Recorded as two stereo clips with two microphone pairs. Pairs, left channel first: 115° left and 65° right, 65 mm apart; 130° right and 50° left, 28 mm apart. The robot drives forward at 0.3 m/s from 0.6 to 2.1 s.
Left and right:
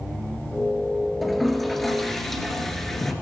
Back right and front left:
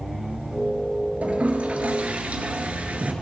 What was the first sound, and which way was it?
A toilet flushing, 25° left.